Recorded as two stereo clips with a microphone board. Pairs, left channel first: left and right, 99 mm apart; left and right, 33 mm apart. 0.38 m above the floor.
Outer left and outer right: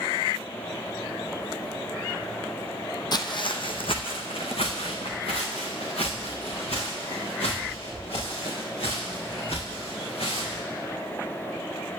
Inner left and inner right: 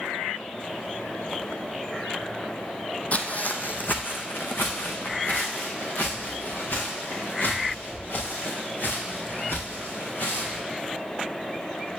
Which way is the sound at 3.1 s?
45° left (ahead or behind).